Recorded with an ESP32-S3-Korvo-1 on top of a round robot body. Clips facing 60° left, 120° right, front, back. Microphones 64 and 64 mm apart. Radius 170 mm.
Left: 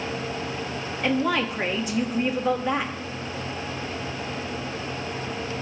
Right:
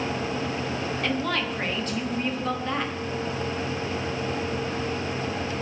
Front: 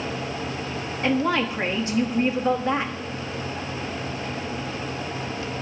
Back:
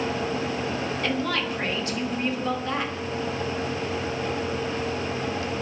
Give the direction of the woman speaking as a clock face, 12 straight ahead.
12 o'clock.